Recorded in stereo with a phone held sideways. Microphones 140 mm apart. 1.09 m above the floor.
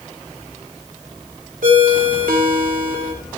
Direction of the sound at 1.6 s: 75° right (ahead or behind).